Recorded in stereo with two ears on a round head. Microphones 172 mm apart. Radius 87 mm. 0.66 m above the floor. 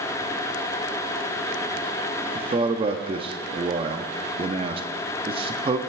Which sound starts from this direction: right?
A man speaking, at 2.4 s.